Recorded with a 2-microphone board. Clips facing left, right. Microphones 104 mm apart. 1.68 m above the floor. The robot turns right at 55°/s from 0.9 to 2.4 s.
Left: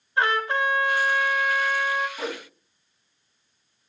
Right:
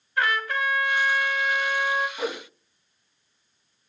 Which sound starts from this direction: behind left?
A trumpet, at 0.2 s.